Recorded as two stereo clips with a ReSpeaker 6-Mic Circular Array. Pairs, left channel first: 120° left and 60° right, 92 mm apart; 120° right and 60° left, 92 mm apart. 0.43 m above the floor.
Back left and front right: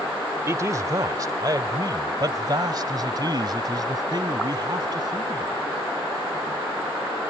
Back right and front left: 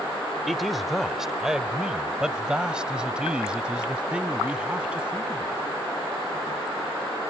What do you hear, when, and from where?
0.5 s a man speaking: 30° right; by 5.7 s 20° right